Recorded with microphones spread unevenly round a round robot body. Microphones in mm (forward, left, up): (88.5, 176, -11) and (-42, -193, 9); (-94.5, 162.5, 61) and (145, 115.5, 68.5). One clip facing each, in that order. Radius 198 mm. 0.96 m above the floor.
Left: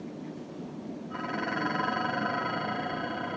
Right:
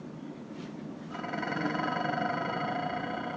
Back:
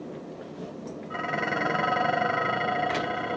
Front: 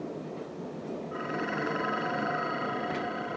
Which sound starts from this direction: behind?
Dishes clattering, at 1.1 s.